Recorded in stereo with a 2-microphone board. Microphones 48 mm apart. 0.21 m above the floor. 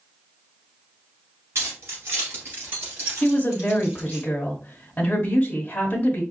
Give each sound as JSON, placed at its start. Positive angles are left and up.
{"t": 1.6, "sound": "keys jangling", "side_deg": -60, "distance_m": 2.0}
{"t": 3.2, "sound": "a woman speaking", "side_deg": 25, "distance_m": 1.0}